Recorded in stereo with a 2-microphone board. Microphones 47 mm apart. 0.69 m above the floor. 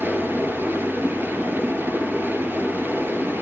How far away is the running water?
About 4.5 m.